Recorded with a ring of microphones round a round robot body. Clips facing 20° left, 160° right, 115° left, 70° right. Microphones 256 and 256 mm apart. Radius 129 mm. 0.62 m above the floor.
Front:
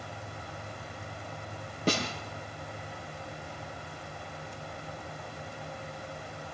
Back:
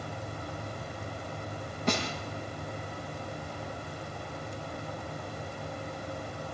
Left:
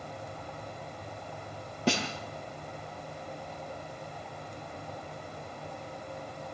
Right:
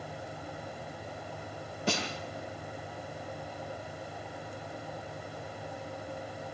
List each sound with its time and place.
1.9 s a snare drum: 80° left, 5 m